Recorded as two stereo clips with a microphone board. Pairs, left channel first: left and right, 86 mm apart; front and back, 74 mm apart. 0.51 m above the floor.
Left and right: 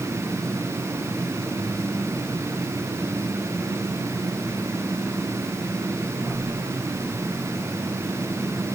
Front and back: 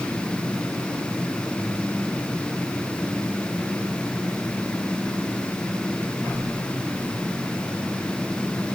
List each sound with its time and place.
Only background noise.